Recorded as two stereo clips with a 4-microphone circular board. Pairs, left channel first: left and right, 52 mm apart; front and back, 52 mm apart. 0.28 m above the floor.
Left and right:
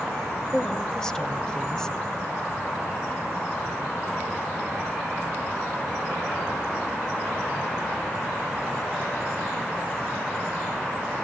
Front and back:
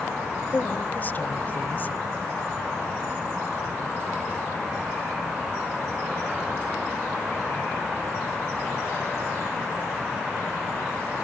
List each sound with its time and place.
0.5 s a woman speaking: 20° left, 1.1 m